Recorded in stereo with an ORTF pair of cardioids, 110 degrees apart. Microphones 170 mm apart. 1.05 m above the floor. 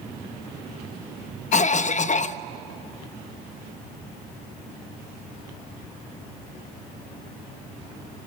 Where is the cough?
45° left, 1.0 m.